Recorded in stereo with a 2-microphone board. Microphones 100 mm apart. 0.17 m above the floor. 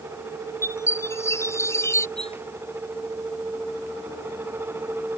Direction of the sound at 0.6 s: 25° left (ahead or behind).